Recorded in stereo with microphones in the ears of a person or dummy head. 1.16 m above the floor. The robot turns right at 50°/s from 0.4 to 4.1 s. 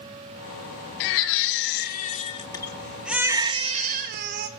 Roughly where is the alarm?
No alarm in this recording.